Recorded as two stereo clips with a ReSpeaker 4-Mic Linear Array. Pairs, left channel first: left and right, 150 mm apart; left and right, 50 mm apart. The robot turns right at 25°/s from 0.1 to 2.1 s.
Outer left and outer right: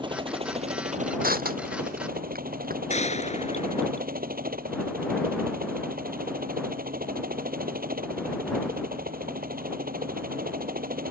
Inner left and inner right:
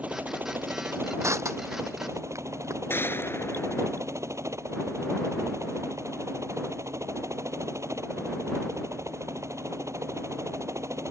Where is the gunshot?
50° left (ahead or behind).